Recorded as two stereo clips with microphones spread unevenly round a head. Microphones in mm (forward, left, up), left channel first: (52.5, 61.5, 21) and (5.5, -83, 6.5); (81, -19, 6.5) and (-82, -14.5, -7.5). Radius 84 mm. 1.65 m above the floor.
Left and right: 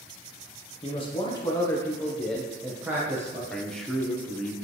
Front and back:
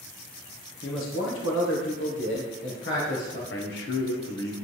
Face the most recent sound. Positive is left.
turn(degrees=-15)